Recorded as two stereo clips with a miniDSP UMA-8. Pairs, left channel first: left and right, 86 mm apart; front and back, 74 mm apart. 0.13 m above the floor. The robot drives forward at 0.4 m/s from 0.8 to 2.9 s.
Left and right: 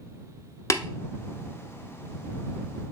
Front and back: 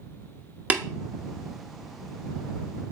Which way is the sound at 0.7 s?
120° left.